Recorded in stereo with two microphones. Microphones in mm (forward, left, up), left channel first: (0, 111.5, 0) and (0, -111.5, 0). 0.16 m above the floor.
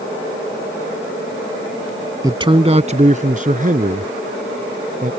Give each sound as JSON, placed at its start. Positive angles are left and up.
{"t": 2.2, "sound": "a man speaking", "side_deg": -15}